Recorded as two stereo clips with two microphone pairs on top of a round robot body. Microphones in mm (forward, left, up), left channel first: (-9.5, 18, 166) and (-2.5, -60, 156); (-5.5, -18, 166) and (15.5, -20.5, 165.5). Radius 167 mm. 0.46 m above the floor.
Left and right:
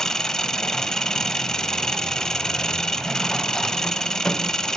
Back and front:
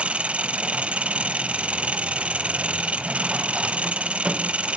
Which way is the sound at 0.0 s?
10° left.